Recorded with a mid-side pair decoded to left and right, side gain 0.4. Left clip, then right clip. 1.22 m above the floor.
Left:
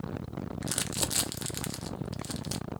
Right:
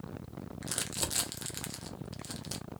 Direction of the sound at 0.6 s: 35° left.